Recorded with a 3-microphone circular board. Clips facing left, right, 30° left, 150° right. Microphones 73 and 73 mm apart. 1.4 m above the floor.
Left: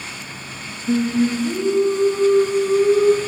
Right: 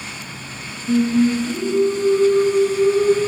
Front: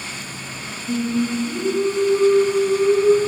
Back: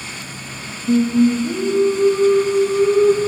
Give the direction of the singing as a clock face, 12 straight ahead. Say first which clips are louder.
Right 2 dB, back 7 dB; 7 o'clock.